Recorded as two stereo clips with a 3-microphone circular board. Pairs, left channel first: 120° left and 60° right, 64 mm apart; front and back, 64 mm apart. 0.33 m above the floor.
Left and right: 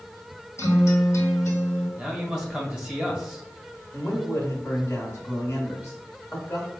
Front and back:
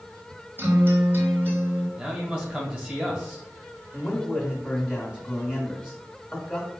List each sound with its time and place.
0.6 s a guitar: 135° left, 1.4 m
2.0 s a man speaking: 135° right, 1.4 m
3.9 s a man speaking: 85° left, 1.5 m